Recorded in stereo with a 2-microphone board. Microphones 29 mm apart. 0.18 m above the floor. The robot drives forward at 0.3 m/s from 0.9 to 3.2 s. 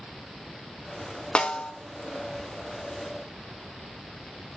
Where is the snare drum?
30° left (ahead or behind), 0.8 m.